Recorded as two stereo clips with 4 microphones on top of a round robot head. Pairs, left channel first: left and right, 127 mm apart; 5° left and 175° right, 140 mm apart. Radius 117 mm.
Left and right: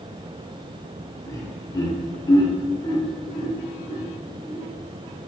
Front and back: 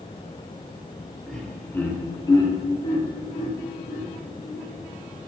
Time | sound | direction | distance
1.3 | laughter | 95° left | 1.2 m